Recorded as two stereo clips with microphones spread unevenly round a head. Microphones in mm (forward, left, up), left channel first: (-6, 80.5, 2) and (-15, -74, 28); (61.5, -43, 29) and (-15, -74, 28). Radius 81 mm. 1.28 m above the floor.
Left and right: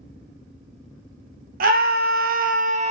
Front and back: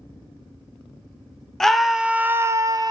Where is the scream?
60° right, 0.7 m; by 2.9 s 140° right, 0.7 m.